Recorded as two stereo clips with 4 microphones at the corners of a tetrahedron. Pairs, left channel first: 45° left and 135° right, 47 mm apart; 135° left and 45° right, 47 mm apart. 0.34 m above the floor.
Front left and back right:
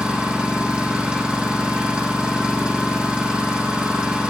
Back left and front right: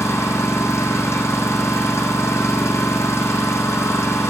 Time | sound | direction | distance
0.0 | an engine running | 155° left | 4.5 m